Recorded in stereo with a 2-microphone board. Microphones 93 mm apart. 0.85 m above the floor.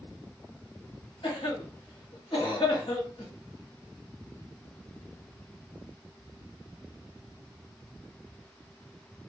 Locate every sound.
1.2 s a cough: 65° left (ahead or behind), 1.5 m